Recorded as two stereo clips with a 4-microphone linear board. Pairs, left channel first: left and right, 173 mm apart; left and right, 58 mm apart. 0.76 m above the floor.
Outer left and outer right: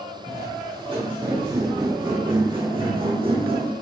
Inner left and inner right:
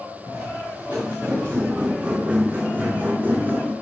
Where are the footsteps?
30° right (ahead or behind), 4.5 m.